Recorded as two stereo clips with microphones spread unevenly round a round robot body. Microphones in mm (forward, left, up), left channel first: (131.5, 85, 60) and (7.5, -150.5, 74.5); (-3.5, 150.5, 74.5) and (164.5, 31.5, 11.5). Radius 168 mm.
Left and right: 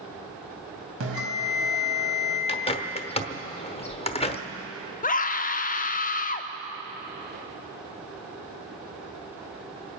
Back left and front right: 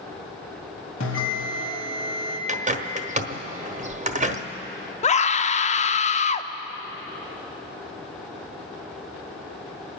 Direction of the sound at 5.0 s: 80° left.